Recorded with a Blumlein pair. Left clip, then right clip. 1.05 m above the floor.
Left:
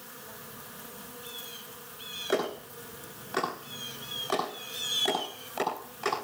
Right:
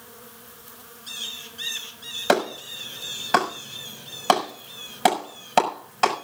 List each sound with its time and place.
2.3 s a clap: 40° right, 6 m